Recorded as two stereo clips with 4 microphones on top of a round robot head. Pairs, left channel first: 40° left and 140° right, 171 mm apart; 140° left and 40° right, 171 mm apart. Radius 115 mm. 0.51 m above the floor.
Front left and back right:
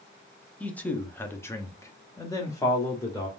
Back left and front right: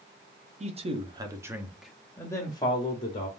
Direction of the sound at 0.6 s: 35° right.